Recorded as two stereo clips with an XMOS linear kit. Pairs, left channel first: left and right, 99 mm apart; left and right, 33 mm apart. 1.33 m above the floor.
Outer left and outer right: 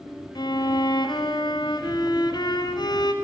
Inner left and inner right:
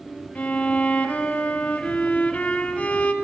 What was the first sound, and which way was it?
A violin, 45° left (ahead or behind).